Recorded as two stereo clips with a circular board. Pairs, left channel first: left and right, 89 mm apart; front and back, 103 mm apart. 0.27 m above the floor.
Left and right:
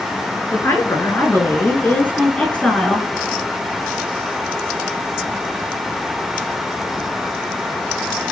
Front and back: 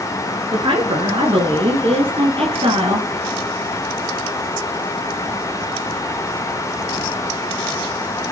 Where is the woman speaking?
145° left, 4 m; by 3.1 s 170° left, 3.5 m.